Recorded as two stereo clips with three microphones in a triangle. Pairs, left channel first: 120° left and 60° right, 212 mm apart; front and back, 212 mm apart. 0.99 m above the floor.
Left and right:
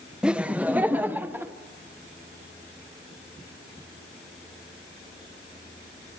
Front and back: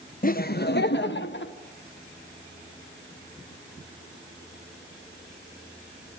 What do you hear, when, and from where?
0.2 s laughter: 25° left, 0.7 m; by 1.5 s 20° left, 1.3 m